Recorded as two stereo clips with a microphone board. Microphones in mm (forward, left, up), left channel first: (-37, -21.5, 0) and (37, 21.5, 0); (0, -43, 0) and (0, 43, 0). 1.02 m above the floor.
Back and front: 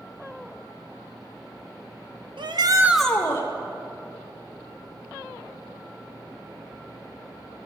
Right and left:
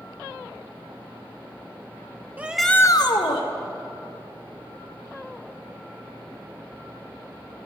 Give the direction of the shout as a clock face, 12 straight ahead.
11 o'clock.